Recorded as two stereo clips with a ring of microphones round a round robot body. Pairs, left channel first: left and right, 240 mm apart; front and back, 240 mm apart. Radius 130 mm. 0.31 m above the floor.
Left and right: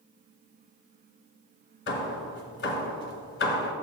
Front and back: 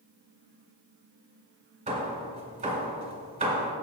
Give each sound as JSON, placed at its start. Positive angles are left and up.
{"t": 1.9, "sound": "hammering", "azimuth_deg": 125, "distance_m": 1.9}